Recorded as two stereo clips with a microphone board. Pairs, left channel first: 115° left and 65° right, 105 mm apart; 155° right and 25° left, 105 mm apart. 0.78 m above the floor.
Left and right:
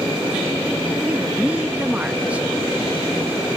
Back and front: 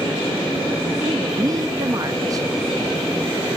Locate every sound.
1.0 s a woman speaking: straight ahead, 0.7 m